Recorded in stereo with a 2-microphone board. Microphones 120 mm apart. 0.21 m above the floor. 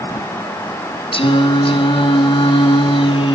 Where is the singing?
50° left (ahead or behind), 1.3 m.